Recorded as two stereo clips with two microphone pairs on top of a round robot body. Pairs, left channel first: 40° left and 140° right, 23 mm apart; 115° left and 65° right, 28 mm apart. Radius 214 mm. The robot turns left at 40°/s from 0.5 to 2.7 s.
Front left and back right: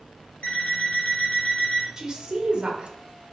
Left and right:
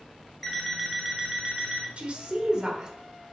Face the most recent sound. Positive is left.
turn(degrees=-120)